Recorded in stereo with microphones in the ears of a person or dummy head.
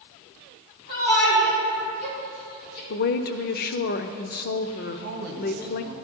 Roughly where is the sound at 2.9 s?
Left.